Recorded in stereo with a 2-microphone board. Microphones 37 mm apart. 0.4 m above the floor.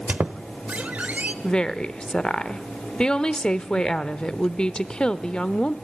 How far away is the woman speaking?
About 0.8 m.